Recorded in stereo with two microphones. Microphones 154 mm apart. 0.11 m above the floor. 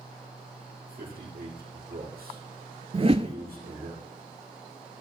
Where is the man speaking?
75° right (ahead or behind), 6 m.